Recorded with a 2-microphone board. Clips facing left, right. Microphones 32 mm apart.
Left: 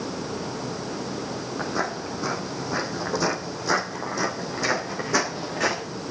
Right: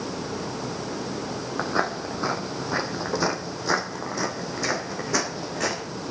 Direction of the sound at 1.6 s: 45° right (ahead or behind).